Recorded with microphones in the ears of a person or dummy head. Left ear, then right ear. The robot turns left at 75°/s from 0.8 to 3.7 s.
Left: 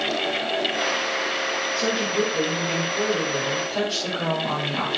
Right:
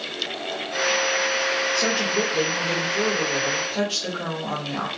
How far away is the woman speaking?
About 3.5 m.